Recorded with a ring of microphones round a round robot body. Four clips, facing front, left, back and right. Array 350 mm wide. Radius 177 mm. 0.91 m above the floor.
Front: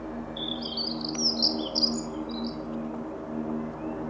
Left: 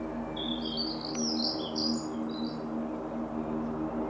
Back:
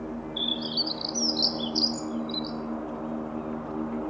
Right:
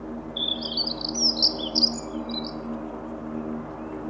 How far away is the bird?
About 1.2 m.